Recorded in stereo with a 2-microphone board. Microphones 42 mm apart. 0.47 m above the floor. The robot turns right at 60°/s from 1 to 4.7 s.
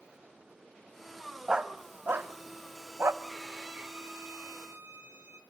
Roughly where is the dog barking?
Centre.